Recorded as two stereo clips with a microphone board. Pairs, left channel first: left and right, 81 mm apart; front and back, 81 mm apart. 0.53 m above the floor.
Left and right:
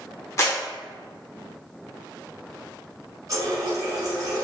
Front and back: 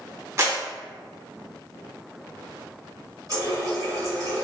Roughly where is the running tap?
Behind right.